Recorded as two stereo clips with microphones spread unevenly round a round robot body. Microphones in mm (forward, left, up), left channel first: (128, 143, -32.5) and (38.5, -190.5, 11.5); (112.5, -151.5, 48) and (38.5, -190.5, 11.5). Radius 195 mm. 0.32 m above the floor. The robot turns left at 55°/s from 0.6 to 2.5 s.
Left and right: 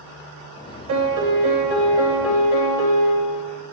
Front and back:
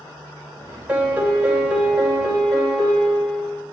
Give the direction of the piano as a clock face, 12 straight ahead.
4 o'clock.